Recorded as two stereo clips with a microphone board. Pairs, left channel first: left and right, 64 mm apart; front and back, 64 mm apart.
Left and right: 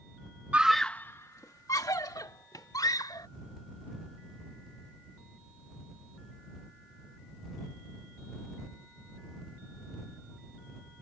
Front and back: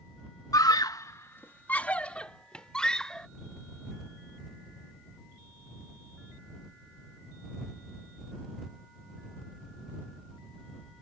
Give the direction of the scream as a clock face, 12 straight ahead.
1 o'clock.